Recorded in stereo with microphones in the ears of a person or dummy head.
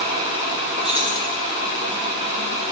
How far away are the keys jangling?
About 0.8 m.